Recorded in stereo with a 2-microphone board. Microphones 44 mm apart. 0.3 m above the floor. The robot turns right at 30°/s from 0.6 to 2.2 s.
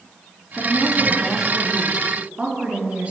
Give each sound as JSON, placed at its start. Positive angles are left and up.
{"t": 0.6, "sound": "a woman speaking", "azimuth_deg": 165, "distance_m": 4.0}